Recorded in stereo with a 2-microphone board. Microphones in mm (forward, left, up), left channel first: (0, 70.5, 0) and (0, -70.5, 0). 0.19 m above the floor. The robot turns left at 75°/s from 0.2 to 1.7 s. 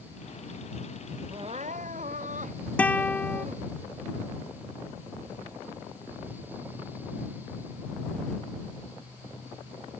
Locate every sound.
1.3 s crying: 35° right (ahead or behind); by 3.7 s 65° right (ahead or behind)
2.8 s a guitar: 10° left (ahead or behind)